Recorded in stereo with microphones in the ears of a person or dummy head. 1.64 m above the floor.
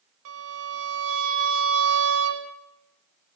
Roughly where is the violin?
Right.